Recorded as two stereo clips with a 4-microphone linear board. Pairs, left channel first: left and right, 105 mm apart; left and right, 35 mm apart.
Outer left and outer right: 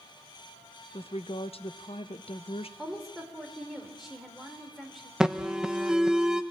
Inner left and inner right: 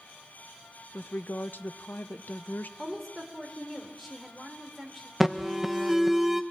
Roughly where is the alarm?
Centre.